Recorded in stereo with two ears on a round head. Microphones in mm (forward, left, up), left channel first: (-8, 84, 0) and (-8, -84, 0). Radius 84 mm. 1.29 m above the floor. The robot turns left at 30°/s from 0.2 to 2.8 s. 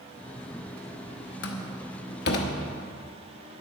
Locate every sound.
1.4 s a door slam: 65° left (ahead or behind), 1.1 m; by 2.5 s 55° left (ahead or behind), 1.1 m